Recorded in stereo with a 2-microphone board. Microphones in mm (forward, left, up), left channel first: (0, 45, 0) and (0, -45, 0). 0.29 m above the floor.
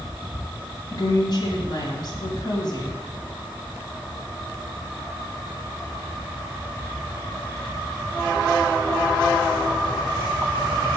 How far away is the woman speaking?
About 2.5 m.